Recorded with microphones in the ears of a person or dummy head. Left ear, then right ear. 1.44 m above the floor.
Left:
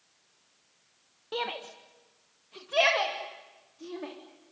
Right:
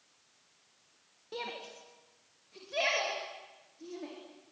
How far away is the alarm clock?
No alarm clock in this recording.